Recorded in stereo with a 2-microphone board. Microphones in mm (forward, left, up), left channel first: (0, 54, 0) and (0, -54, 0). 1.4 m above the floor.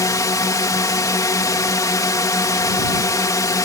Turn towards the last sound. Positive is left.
turn(degrees=30)  # may be behind; listen again after turning